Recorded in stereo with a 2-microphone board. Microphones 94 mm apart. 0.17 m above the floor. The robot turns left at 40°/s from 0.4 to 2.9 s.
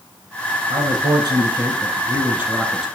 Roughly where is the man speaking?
Right.